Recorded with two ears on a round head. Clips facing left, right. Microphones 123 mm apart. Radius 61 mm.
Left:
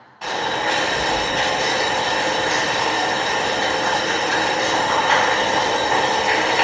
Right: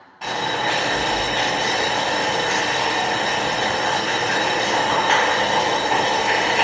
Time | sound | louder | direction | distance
0.2 | boiling | left 1 dB | 10° right (ahead or behind) | 1.1 m